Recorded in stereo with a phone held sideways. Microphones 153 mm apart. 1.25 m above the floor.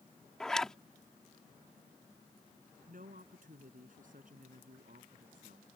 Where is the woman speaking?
60° right (ahead or behind).